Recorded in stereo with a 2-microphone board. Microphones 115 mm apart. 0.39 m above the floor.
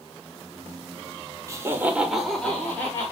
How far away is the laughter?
About 0.9 m.